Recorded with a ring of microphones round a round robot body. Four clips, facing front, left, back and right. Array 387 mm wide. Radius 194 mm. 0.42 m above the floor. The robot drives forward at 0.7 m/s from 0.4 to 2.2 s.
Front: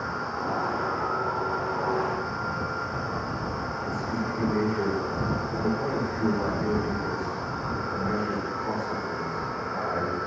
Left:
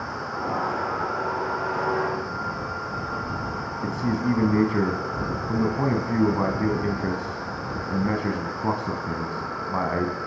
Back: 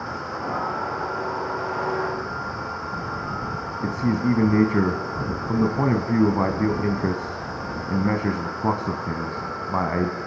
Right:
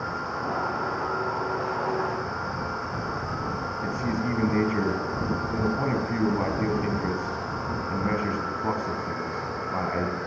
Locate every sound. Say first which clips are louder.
3.8 s a man speaking: left 4 dB, back 10 dB; 165° left, 4.5 m